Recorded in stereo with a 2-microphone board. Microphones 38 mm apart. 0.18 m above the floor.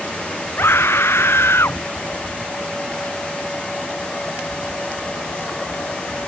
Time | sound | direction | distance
0.6 | a scream | 75° left (ahead or behind) | ?